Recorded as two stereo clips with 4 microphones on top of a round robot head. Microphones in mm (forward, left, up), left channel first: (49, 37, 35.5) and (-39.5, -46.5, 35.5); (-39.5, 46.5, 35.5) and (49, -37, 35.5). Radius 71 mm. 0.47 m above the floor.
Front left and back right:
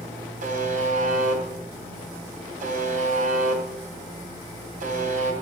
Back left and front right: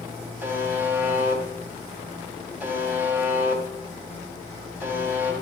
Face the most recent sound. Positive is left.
turn(degrees=-115)